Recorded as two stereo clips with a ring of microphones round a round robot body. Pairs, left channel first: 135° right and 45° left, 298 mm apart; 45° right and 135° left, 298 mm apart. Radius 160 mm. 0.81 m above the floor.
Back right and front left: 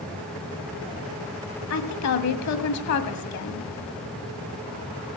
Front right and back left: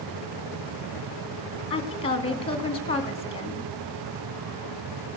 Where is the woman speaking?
115° right, 1.9 m.